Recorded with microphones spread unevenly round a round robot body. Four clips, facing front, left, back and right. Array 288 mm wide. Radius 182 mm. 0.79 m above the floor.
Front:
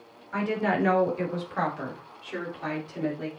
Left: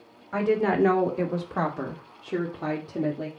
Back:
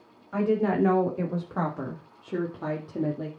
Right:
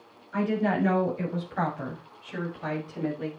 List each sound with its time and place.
0.3 s a woman speaking: 90° left, 3 m; by 3.3 s 135° left, 2.5 m